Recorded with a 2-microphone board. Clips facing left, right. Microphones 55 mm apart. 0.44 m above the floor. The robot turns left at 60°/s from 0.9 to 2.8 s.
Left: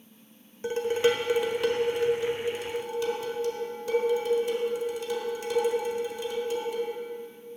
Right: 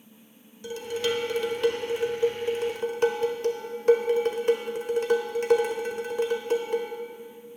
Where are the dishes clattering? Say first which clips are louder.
Left 5 dB; 45° left, 1.0 m; by 6.9 s 70° right, 1.0 m.